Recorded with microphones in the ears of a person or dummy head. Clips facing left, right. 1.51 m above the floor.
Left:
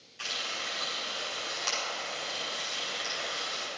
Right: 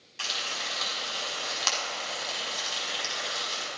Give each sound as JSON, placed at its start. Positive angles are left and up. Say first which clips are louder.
{"t": 0.2, "sound": "frying", "louder": "right 2 dB", "side_deg": -70, "distance_m": 5.0}